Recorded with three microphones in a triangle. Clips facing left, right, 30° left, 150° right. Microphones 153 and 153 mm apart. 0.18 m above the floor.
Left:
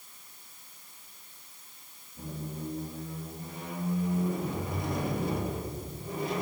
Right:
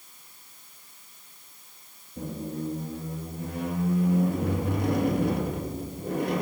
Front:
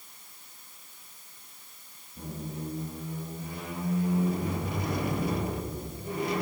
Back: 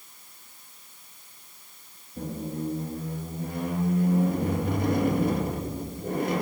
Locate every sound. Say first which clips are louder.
2.2 s a squeak: right 6 dB, back 6 dB; 110° right, 1.6 m